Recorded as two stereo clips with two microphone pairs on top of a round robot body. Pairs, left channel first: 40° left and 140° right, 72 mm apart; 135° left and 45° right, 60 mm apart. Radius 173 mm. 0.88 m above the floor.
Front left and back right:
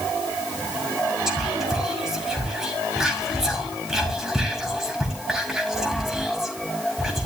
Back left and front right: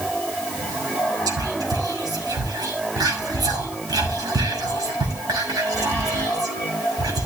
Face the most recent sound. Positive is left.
turn(degrees=-55)